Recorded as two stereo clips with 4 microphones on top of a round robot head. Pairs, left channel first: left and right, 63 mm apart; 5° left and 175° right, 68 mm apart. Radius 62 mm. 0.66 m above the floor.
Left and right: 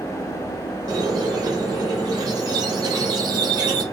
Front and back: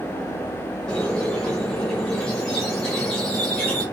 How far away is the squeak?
About 0.7 m.